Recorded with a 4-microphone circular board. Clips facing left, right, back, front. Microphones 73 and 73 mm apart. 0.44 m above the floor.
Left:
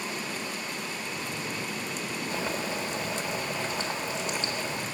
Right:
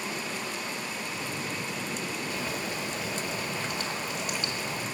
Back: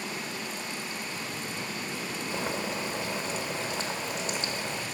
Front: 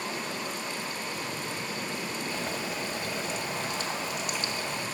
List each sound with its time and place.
2.3 s boiling: 140° left, 1.6 m